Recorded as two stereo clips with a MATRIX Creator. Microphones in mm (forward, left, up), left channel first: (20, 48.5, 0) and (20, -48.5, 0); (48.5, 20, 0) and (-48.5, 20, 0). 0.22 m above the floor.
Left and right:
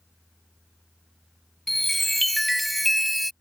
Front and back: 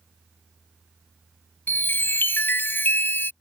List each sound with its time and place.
1.7 s a chime: 5° left